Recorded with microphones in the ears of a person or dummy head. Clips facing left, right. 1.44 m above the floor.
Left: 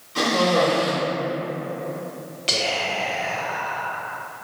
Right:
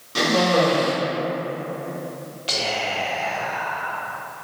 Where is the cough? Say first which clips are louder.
Right 1 dB; 65° right (ahead or behind), 1.5 m.